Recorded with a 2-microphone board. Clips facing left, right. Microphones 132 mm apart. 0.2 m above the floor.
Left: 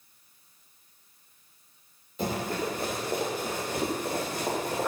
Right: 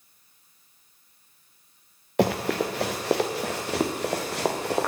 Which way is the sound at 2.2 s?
75° right (ahead or behind).